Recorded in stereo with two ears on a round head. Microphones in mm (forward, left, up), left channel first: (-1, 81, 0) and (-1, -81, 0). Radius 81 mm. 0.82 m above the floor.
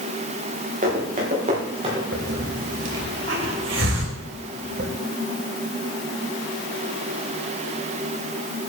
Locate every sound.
0.8 s running footsteps: 45° right (ahead or behind), 7 m; by 2.0 s 30° right (ahead or behind), 7.5 m
2.1 s a hiss: 75° right (ahead or behind), 3.5 m